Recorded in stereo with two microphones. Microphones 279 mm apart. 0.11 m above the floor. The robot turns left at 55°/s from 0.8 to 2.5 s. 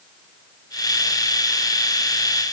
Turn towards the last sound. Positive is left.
No sound to turn to.